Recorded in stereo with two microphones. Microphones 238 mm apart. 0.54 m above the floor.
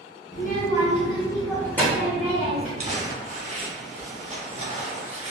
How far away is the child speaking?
About 0.8 m.